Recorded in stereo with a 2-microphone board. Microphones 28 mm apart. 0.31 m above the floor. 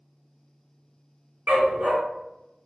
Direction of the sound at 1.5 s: 75° right (ahead or behind).